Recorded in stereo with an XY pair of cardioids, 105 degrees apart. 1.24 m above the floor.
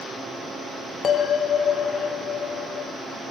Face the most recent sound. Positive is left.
turn(degrees=45)